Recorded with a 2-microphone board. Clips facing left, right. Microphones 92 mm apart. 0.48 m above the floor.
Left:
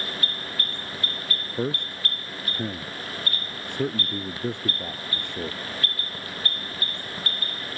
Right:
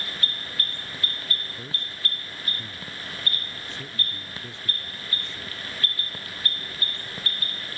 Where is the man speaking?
55° left (ahead or behind).